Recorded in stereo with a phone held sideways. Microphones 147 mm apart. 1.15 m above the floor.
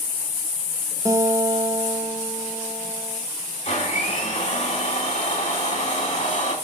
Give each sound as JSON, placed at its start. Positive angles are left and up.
{"t": 1.1, "sound": "a guitar", "side_deg": -20, "distance_m": 1.1}
{"t": 3.6, "sound": "a blender", "side_deg": 55, "distance_m": 4.0}